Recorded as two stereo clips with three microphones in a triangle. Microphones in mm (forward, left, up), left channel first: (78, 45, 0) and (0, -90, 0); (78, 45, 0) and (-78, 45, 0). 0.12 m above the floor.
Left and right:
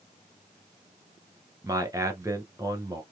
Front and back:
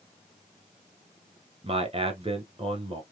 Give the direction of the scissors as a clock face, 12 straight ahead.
No scissors in this recording.